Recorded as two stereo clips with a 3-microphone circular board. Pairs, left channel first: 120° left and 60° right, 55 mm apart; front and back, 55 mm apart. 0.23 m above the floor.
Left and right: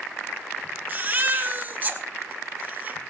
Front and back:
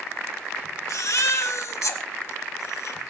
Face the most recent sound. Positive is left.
turn(degrees=-10)